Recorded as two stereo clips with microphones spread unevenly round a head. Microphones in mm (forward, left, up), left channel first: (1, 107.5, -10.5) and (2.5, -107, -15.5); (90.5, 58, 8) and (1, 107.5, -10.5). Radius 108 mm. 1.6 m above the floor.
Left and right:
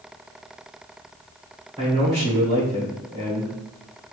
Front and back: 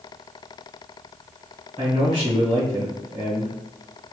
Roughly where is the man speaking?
Behind right.